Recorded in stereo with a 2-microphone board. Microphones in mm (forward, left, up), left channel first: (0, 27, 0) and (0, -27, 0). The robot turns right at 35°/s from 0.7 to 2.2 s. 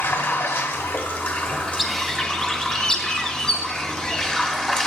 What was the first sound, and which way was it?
Running water, 115° left.